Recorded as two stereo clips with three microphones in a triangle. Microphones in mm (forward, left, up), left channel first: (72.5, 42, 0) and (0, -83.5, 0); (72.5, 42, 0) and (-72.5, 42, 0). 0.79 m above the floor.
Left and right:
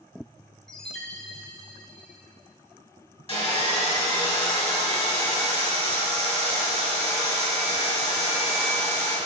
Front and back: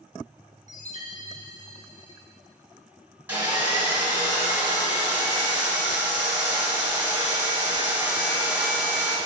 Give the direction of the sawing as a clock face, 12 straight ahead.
9 o'clock.